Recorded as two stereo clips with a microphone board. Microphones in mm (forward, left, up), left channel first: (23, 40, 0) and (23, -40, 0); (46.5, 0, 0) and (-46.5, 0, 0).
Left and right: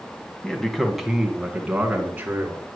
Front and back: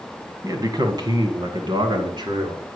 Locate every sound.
0.4 s a man speaking: 165° left, 1.7 m; by 2.6 s 155° right, 3 m